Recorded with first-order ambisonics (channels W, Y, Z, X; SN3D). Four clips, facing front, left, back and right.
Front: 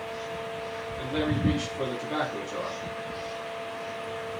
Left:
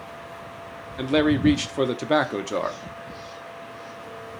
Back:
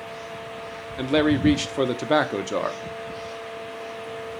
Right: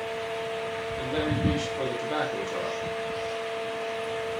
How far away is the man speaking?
About 1.0 m.